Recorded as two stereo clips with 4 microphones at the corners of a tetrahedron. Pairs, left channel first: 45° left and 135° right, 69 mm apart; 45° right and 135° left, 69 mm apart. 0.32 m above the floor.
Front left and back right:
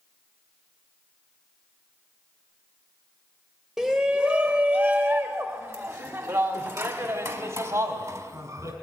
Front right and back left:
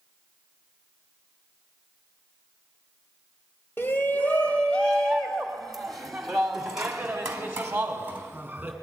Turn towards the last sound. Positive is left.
turn(degrees=-155)